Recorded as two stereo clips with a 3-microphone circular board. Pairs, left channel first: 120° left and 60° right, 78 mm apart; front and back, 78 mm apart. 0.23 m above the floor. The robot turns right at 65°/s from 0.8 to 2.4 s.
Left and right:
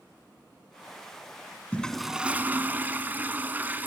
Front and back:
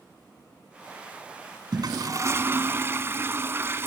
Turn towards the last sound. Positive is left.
turn(degrees=-125)